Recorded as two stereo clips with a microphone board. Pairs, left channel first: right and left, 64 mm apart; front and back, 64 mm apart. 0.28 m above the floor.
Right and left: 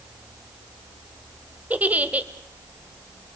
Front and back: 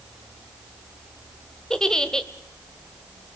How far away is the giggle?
About 1.0 m.